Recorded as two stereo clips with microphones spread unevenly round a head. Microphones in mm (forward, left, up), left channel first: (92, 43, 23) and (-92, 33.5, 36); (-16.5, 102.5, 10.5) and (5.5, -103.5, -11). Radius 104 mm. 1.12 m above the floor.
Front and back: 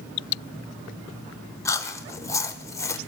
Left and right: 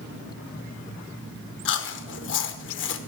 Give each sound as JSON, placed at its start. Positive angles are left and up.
{"t": 1.6, "sound": "chewing", "azimuth_deg": 70, "distance_m": 1.0}